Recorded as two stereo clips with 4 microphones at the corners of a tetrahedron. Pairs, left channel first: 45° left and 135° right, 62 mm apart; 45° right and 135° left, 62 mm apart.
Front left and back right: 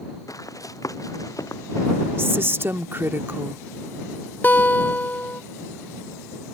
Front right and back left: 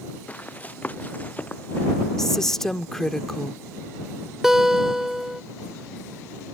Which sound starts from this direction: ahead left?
A guitar, at 4.4 s.